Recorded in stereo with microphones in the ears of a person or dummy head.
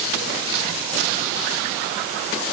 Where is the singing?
I don't hear singing.